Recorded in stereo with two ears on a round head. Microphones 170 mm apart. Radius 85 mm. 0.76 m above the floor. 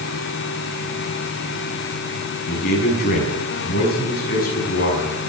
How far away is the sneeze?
I don't hear a sneeze.